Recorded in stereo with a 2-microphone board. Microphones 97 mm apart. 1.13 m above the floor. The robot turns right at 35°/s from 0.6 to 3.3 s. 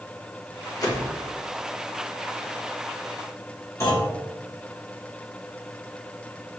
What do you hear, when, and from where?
0.8 s a whoosh: 40° left (ahead or behind), 0.9 m; by 1.1 s 25° left (ahead or behind), 0.9 m
3.8 s a clunk: 30° left (ahead or behind), 2 m